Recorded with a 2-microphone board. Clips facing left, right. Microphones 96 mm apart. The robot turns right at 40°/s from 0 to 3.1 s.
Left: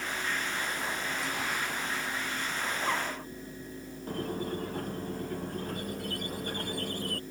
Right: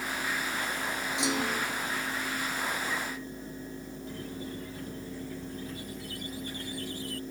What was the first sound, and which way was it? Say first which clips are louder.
A clunk: right 4 dB; 80° right.